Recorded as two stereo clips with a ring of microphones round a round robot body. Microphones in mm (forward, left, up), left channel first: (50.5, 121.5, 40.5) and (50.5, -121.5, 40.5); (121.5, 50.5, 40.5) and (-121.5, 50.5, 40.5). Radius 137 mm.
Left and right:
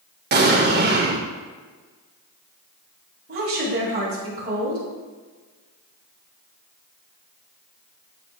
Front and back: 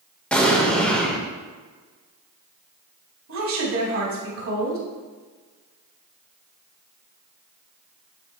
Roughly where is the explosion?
Right.